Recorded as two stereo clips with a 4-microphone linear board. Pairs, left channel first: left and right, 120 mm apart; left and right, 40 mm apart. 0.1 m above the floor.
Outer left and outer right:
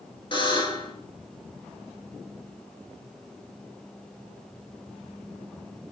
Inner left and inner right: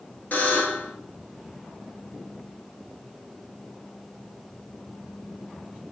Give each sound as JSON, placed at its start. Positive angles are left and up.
{"t": 0.3, "sound": "a buzzer", "side_deg": 40, "distance_m": 1.2}